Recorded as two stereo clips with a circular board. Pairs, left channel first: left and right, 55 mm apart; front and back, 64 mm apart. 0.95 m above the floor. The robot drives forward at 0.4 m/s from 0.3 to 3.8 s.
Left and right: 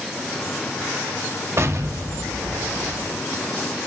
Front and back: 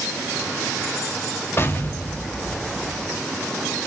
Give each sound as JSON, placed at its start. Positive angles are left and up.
{"t": 1.6, "sound": "an explosion", "azimuth_deg": -50, "distance_m": 0.9}